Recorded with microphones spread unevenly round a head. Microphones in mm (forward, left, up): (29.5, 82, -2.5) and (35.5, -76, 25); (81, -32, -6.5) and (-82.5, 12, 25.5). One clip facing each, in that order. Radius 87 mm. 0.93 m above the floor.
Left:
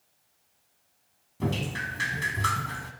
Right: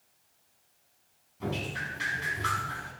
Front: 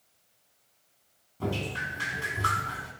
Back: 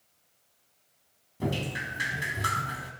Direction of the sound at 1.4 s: 115° left.